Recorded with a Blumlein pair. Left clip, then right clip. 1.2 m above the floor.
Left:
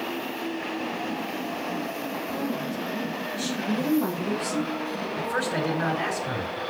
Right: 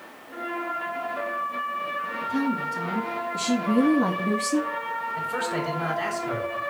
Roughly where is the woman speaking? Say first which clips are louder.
Right 3 dB; ahead.